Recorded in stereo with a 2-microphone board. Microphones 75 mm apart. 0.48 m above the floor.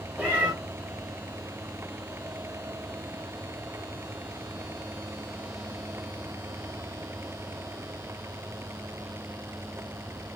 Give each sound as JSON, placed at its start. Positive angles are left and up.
{"t": 0.2, "sound": "a cat meowing", "side_deg": -20, "distance_m": 1.2}